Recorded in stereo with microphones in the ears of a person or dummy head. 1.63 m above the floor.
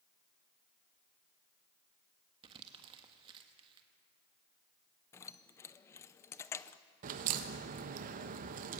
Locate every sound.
2.4 s crumpling: 25° right (ahead or behind), 1.5 m
5.1 s keys jangling: 20° left (ahead or behind), 0.6 m
7.0 s a crack: 45° right (ahead or behind), 1.2 m